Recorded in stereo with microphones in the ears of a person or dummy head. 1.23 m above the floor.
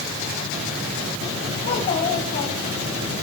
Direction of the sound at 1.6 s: 35° left (ahead or behind).